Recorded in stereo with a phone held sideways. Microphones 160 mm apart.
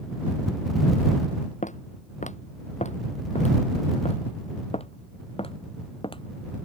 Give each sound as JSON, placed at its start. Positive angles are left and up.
{"t": 1.6, "sound": "footsteps", "side_deg": 50}